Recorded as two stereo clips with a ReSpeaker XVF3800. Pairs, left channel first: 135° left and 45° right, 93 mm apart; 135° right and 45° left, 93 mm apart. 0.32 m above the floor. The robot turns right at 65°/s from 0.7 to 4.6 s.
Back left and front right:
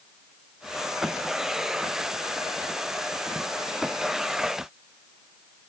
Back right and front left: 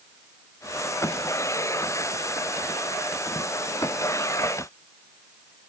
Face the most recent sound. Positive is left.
No sound to turn to.